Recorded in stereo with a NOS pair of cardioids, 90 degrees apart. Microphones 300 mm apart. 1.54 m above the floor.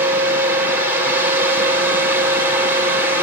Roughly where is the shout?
I don't hear a shout.